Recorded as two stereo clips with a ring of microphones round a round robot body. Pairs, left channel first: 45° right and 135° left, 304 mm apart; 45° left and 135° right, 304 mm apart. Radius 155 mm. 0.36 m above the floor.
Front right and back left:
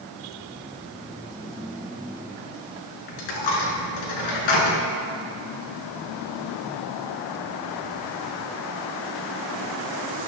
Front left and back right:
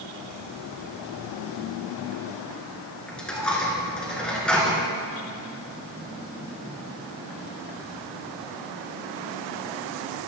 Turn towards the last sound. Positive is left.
turn(degrees=-40)